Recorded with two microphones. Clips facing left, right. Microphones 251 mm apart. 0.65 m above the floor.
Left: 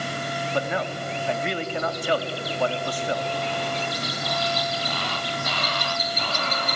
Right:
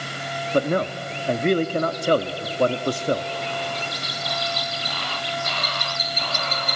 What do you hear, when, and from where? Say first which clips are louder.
0.5 s a man speaking: right 7 dB; 45° right (ahead or behind), 0.8 m